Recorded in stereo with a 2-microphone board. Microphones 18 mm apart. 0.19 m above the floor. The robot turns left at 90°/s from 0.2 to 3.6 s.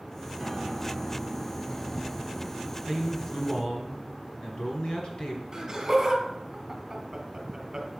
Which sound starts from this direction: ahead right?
A piano, at 0.4 s.